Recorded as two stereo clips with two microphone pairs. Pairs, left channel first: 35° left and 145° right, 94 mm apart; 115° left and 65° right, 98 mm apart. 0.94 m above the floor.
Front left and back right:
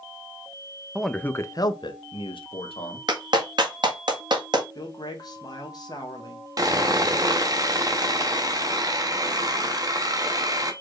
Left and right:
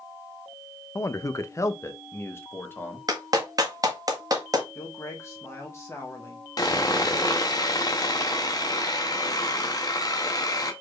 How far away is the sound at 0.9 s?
About 0.5 m.